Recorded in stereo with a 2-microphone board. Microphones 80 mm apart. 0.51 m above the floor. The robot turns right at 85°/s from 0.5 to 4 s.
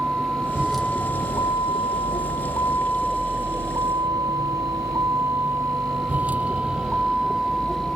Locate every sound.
0.0 s a vehicle: 15° right (ahead or behind); by 8.0 s centre (ahead or behind)